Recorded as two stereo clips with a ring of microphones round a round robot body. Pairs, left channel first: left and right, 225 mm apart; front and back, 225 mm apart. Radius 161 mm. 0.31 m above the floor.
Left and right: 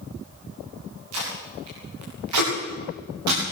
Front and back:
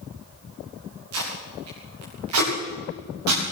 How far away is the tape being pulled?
About 9 m.